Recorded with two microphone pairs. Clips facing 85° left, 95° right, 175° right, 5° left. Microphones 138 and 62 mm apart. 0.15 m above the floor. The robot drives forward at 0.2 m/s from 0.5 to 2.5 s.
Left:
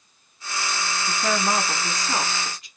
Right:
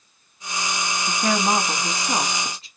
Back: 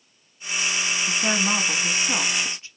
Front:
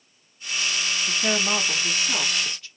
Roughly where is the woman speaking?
Right.